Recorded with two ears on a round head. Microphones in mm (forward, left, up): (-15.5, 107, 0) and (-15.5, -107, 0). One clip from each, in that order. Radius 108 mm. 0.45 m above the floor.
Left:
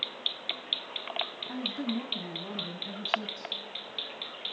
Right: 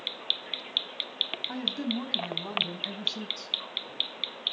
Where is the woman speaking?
35° right (ahead or behind), 3.5 m; by 3.5 s 40° right (ahead or behind), 5 m.